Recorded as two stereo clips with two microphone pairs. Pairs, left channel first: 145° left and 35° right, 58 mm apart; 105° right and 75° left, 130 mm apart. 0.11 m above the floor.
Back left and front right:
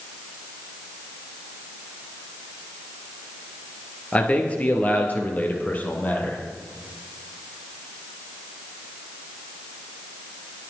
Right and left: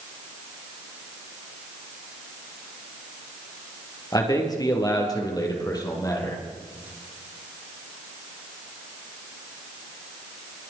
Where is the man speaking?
155° right, 2.5 m; by 6.4 s 160° right, 4 m.